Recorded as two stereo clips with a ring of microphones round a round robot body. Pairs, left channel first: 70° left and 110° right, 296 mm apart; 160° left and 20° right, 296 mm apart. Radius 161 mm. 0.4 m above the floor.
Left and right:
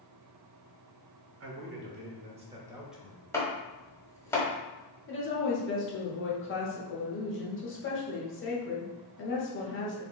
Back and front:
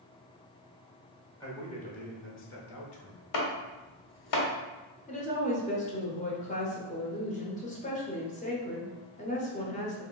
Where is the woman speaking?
100° left, 1.3 m.